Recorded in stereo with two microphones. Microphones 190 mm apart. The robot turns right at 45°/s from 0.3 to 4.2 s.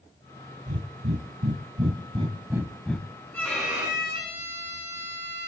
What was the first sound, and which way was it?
Breathing, 80° right.